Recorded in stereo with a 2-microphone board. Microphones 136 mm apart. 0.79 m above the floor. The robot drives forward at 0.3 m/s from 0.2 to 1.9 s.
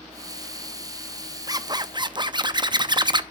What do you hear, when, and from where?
1.5 s a zipper: 25° right (ahead or behind), 0.6 m; by 3.2 s 35° right (ahead or behind), 0.5 m